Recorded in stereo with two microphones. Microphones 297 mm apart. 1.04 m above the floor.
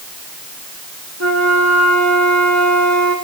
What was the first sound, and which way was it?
A flute, 60° right (ahead or behind).